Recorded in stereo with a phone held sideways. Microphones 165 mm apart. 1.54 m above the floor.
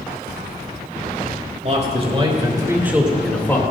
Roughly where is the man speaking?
Right.